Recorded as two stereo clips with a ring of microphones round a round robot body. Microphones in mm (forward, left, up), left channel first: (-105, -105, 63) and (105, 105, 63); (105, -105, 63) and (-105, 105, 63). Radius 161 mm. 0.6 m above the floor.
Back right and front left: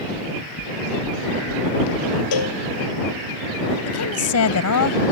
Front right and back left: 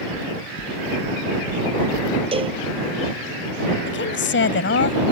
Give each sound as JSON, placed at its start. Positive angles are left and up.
{"t": 0.1, "sound": "knocking", "azimuth_deg": -100}
{"t": 2.3, "sound": "a cowbell", "azimuth_deg": -150}
{"t": 3.9, "sound": "a woman speaking", "azimuth_deg": -95}